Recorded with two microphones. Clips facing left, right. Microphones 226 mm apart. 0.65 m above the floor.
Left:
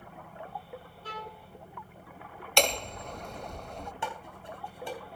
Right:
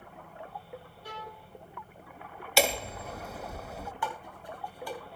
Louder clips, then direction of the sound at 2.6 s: Right 1 dB; 5° right (ahead or behind).